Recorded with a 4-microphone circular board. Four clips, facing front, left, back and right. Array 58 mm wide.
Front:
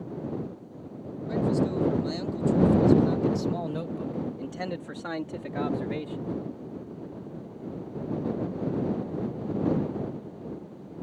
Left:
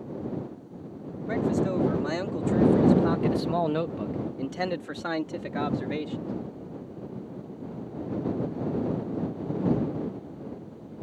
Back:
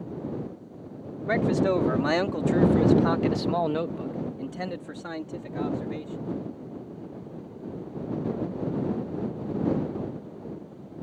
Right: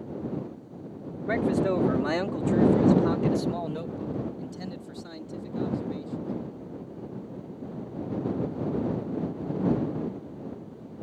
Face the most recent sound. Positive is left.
turn(degrees=70)